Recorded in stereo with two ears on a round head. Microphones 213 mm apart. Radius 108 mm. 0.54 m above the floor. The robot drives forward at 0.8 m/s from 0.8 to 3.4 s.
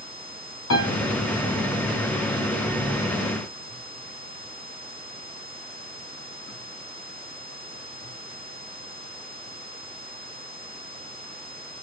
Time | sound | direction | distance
0.7 | a piano | 65° left (ahead or behind) | 6.5 m